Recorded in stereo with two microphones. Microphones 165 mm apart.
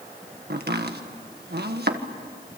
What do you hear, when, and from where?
0.5 s chopping: 80° right, 1.6 m